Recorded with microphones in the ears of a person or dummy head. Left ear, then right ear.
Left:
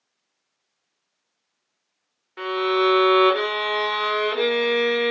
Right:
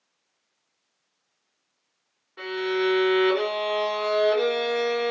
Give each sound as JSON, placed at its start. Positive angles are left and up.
{"t": 2.4, "sound": "a violin", "side_deg": 75, "distance_m": 0.9}